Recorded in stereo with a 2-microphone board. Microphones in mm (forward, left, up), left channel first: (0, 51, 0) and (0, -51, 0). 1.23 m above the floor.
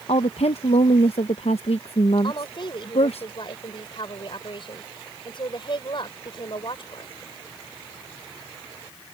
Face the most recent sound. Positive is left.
turn(degrees=55)  # may be behind; listen again after turning